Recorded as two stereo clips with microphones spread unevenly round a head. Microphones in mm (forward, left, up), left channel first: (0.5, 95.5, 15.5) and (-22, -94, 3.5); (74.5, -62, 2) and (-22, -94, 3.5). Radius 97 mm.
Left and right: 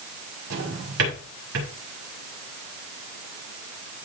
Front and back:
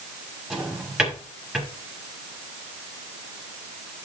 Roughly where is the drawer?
Right.